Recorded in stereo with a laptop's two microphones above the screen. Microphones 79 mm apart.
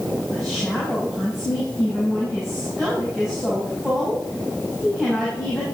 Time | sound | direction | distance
0.3 | a woman speaking | centre (ahead or behind) | 5.5 m